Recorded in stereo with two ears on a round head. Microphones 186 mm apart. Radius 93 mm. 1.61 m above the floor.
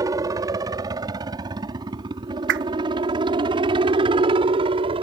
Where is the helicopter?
15° right (ahead or behind); by 5.0 s 25° right (ahead or behind).